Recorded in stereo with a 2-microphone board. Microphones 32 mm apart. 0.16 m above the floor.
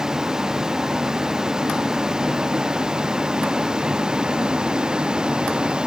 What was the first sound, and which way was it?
A vehicle, 20° right (ahead or behind).